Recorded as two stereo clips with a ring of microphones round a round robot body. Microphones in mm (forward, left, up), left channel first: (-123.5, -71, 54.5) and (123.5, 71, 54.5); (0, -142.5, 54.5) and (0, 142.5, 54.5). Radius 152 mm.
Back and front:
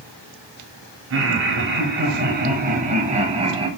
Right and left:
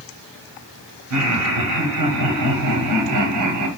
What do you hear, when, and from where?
1.1 s laughter: 65° left, 2.5 m; by 3.7 s 105° left, 2.5 m